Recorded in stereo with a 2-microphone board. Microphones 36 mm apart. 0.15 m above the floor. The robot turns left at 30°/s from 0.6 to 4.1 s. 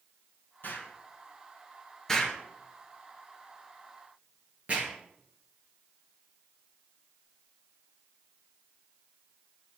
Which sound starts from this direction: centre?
An explosion, at 2.1 s.